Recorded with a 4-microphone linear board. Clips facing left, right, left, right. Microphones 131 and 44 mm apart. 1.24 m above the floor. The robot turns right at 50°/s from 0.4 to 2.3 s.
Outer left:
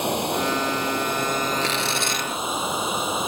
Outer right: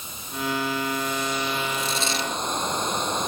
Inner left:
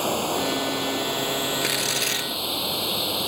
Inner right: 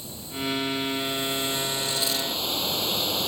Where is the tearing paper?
105° left; by 2.3 s 140° left.